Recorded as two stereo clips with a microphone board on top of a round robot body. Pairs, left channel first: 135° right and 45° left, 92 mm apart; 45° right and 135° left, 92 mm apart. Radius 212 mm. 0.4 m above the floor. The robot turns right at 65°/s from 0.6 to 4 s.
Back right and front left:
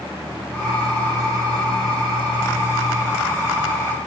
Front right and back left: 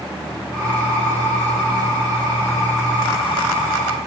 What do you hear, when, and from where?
Only background noise.